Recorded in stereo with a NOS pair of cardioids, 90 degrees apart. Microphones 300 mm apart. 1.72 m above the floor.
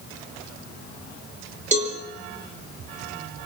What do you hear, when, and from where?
1.7 s a cowbell: 25° right, 6.5 m